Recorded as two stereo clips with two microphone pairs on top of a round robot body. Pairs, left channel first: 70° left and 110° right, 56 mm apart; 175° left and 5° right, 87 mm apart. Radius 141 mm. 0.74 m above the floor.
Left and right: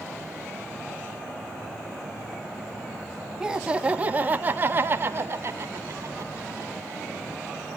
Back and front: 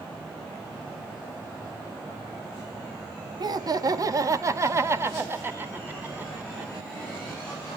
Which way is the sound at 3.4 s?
30° right.